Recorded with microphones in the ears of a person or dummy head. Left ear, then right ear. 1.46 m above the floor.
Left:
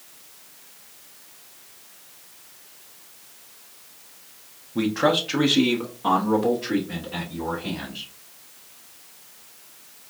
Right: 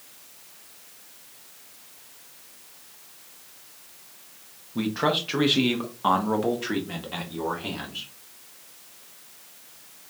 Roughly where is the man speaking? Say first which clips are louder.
Left 4 dB; centre.